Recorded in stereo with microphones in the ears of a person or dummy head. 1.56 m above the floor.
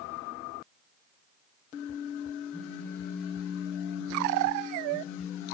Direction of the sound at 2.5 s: 10° left (ahead or behind).